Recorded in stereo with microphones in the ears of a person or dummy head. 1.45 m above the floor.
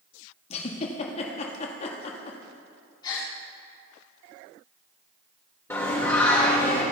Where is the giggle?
40° left (ahead or behind), 1.6 m.